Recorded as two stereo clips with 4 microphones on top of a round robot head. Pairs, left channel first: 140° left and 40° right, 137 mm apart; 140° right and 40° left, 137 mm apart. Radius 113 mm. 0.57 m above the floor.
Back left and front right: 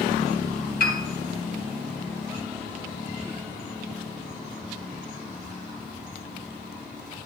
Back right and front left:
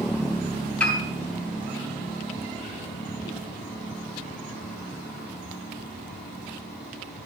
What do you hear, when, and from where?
0.8 s a piano: 135° left, 2.5 m